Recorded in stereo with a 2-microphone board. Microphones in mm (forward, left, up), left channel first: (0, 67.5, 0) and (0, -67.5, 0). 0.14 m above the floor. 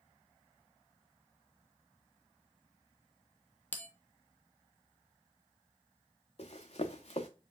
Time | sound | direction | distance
3.7 | a bell | 15° left (ahead or behind) | 0.6 m
6.4 | running footsteps | 50° left (ahead or behind) | 0.7 m